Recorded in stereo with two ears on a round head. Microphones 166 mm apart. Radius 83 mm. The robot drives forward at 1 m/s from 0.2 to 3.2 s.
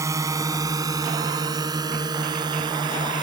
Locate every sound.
0.0 s a drone: 15° right (ahead or behind); by 3.2 s 25° right (ahead or behind)